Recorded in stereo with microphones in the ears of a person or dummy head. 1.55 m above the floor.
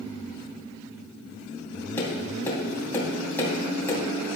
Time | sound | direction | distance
2.0 | tapping | 15° left (ahead or behind) | 3 m